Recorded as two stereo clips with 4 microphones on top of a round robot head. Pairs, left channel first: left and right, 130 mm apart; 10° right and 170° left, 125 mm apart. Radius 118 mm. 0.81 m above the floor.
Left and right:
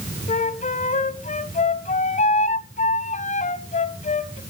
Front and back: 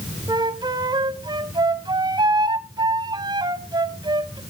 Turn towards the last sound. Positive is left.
turn(degrees=115)